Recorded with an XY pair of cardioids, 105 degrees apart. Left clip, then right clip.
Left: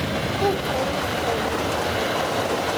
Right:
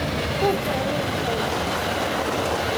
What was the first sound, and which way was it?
A child speaking, 10° right.